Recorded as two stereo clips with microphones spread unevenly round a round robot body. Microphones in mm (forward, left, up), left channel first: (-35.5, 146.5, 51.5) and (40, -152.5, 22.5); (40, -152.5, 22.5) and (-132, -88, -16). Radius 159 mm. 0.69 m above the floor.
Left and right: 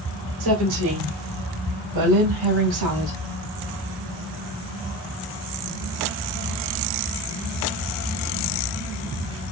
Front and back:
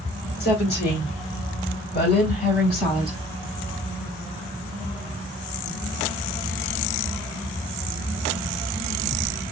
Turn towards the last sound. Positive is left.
turn(degrees=-55)